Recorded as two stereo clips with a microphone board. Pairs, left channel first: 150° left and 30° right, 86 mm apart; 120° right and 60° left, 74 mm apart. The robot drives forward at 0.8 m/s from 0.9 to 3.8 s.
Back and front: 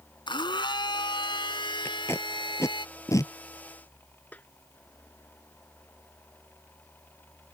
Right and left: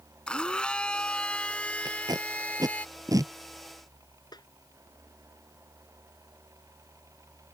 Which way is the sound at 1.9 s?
85° left.